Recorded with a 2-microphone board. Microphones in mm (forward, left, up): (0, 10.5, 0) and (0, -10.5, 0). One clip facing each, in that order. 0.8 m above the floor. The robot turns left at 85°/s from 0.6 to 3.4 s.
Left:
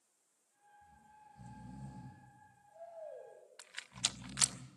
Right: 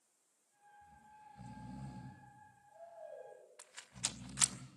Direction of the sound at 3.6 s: 45° left (ahead or behind).